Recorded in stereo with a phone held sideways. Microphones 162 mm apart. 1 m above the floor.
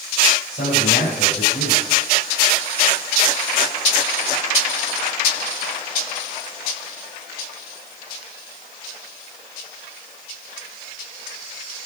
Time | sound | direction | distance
0.5 | a man speaking | 60° left (ahead or behind) | 5 m